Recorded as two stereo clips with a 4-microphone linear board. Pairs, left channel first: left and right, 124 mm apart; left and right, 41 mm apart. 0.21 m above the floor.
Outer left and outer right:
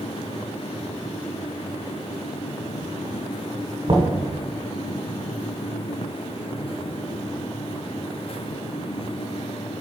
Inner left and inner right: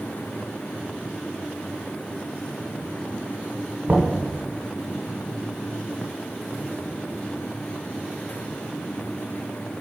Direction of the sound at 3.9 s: 45° right (ahead or behind).